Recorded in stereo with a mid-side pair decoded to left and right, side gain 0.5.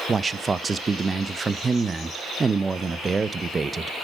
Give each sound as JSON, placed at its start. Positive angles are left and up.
{"t": 0.1, "sound": "a man speaking", "azimuth_deg": -25, "distance_m": 0.6}